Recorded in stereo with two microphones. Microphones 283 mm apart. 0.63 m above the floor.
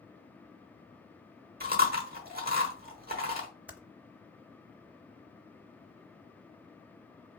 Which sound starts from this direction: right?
Chewing, at 1.6 s.